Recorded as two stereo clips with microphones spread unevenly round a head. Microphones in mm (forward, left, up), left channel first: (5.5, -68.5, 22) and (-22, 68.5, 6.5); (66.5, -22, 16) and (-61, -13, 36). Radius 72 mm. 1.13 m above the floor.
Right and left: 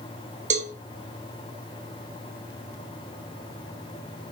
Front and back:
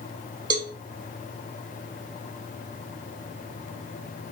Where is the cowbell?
120° left, 1.0 m.